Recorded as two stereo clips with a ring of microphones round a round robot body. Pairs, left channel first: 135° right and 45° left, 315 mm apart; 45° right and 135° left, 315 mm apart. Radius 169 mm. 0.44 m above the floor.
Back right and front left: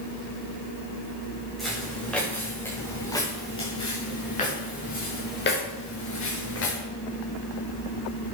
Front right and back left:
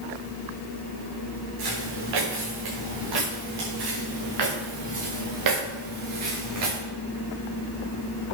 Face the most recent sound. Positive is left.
turn(degrees=175)